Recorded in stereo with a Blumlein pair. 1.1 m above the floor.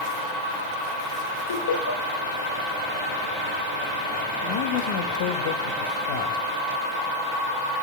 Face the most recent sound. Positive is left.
turn(degrees=50)